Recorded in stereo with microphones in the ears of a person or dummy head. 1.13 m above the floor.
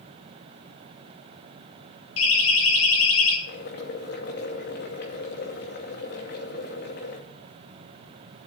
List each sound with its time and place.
2.2 s a siren: 75° left (ahead or behind), 3.5 m
3.5 s boiling: 60° left (ahead or behind), 2 m